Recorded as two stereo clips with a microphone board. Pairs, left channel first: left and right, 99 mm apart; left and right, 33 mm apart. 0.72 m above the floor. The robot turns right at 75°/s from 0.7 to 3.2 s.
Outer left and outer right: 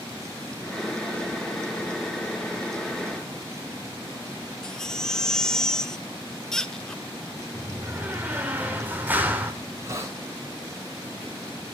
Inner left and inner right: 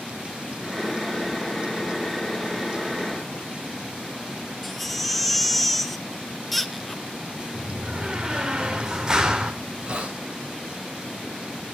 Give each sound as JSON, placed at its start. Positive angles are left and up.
{"t": 4.6, "sound": "a baby crying", "side_deg": 5, "distance_m": 0.7}
{"t": 7.5, "sound": "a door slam", "side_deg": -20, "distance_m": 2.0}
{"t": 9.6, "sound": "a hiss", "side_deg": -30, "distance_m": 3.0}